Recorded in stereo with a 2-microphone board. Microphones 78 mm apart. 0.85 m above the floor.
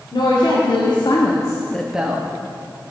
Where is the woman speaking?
75° left (ahead or behind), 2.5 m; by 2.3 s 25° right (ahead or behind), 1.3 m.